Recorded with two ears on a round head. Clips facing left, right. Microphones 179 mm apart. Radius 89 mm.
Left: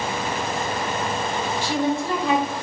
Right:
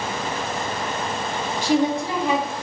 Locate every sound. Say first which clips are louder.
1.6 s a woman speaking: right 4 dB; 15° right (ahead or behind), 1.8 m